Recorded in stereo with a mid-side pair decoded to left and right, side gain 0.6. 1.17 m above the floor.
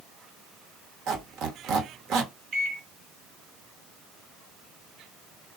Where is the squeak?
60° right, 1.0 m.